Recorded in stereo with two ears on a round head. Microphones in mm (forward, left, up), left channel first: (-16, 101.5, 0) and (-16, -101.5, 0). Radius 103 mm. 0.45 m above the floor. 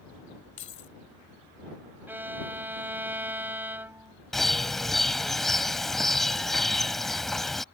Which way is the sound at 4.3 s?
Centre (ahead or behind).